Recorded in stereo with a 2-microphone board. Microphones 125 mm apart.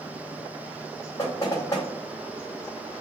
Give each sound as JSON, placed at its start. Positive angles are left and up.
{"t": 1.2, "sound": "knocking", "side_deg": 30, "distance_m": 2.0}